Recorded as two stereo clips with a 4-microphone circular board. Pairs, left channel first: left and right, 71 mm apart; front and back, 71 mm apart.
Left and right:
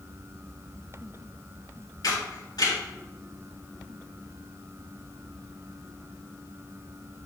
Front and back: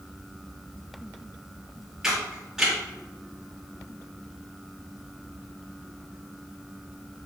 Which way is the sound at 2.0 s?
100° left.